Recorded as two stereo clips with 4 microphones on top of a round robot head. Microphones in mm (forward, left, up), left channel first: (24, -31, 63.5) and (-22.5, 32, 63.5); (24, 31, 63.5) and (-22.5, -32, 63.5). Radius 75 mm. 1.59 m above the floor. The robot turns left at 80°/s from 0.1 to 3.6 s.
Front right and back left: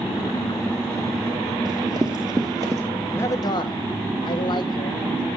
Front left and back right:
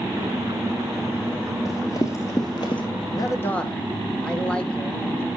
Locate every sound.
1.6 s running footsteps: 100° left, 1.8 m; by 2.8 s 75° left, 2 m
3.1 s a man speaking: 15° left, 1.6 m; by 5.3 s 25° right, 1.6 m